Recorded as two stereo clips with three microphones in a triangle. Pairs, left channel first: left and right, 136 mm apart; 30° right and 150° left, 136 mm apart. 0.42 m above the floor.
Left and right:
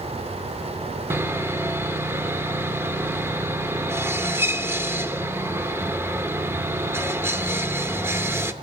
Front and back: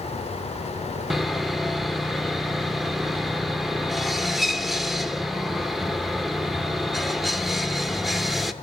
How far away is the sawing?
About 0.6 m.